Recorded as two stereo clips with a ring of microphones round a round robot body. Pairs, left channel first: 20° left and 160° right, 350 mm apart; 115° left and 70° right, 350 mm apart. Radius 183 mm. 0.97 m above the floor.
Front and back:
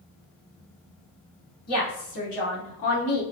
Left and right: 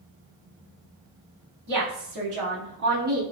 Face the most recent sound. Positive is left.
turn(degrees=0)